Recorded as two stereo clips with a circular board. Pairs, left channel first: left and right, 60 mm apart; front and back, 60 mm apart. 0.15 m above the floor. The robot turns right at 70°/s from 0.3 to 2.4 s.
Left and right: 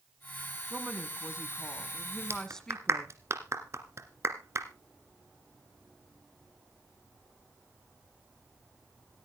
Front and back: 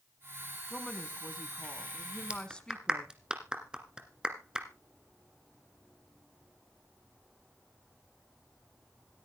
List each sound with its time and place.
0.7 s a woman speaking: 85° right, 1.1 m; by 3.1 s 35° left, 1.1 m
2.3 s a clap: 115° right, 1.8 m; by 4.7 s 105° right, 1.8 m